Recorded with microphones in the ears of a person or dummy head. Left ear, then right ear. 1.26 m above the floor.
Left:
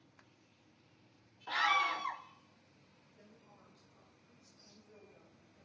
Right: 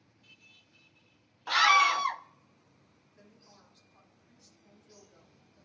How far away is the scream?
About 0.7 m.